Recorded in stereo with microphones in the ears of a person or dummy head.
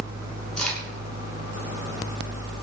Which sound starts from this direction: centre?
A crack, at 0.6 s.